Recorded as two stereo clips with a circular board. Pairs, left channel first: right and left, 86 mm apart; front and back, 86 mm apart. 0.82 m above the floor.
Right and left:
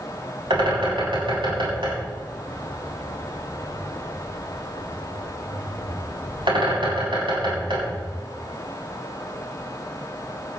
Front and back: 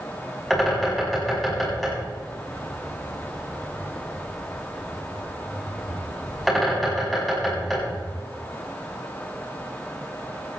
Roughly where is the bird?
Left.